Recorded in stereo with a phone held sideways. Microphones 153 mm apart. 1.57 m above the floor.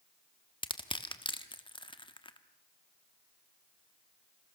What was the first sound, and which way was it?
Crushing, 30° left (ahead or behind).